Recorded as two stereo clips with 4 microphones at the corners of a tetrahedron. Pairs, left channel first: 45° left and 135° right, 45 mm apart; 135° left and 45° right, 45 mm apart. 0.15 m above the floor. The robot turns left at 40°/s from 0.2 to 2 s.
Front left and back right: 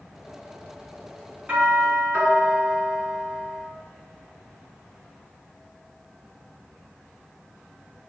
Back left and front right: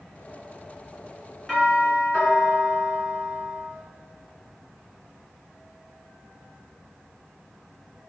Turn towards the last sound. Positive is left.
turn(degrees=-170)